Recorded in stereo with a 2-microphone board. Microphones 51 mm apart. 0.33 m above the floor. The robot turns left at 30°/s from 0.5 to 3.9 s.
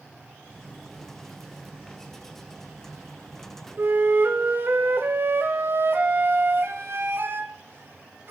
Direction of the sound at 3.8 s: 50° right (ahead or behind).